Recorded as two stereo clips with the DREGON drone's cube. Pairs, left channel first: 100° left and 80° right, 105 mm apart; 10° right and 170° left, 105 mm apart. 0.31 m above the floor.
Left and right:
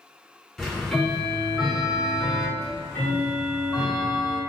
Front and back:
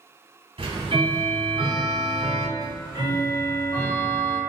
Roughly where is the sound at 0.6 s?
Behind.